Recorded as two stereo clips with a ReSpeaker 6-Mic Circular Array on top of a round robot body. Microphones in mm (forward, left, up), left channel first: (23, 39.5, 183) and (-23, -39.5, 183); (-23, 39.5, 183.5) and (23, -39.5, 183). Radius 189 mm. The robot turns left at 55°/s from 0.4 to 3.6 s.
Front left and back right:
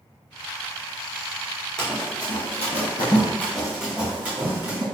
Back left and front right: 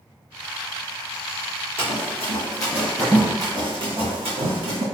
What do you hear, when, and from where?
1.8 s running footsteps: 140° left, 1.4 m; by 4.8 s 55° right, 2.0 m